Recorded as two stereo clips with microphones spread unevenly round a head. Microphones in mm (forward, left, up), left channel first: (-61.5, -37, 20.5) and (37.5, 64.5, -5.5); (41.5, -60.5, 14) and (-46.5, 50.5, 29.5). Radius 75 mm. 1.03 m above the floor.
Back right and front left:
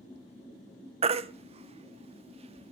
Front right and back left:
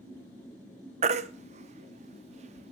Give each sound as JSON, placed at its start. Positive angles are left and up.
{"t": 1.0, "sound": "a baby crying", "azimuth_deg": 95, "distance_m": 0.7}